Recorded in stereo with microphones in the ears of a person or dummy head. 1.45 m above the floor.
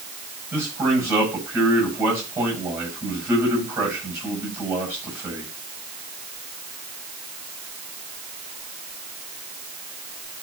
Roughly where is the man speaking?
Centre.